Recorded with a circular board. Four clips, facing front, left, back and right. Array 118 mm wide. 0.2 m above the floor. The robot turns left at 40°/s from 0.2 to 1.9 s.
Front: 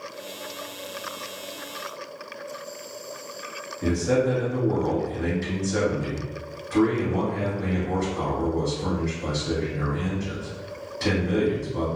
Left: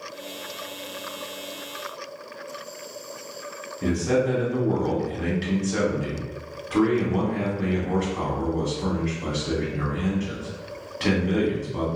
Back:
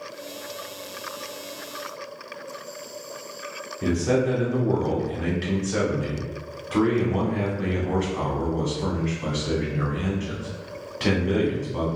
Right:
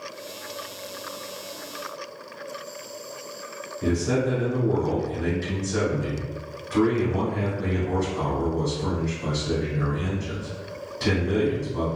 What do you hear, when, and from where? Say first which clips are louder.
3.8 s a man speaking: left 1 dB, even; 140° left, 1.4 m